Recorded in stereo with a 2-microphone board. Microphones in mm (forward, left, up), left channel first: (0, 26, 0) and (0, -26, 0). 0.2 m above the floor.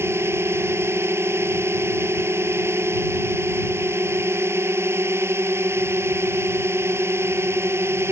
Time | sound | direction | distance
0.0 | a drone | 55° right (ahead or behind) | ?